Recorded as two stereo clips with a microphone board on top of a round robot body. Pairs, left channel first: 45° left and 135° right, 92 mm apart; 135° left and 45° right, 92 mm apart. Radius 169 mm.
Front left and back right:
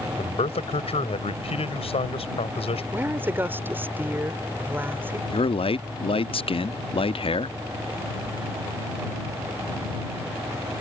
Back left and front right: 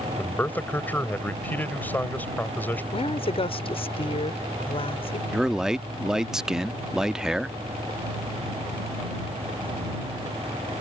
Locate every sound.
0.2 s a man speaking: 60° left
2.9 s a woman speaking: 155° left
5.3 s a man speaking: 40° left